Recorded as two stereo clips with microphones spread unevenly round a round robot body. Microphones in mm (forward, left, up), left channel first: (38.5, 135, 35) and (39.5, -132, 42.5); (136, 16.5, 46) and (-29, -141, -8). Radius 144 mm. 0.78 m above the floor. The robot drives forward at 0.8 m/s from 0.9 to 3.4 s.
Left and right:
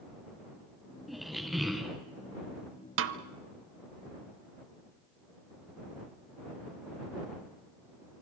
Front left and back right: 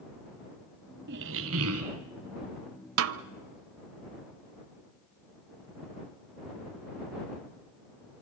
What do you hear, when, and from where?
1.1 s a squeak: 175° right, 0.7 m; by 2.0 s straight behind, 1.2 m
3.0 s a snare drum: 120° right, 0.7 m; by 3.2 s 135° right, 0.8 m